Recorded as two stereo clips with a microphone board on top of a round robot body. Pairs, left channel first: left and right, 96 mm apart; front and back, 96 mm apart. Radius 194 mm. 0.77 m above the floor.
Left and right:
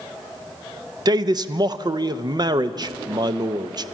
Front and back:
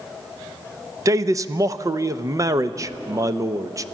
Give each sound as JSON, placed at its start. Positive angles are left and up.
{"t": 1.1, "sound": "a man speaking", "azimuth_deg": -130, "distance_m": 0.8}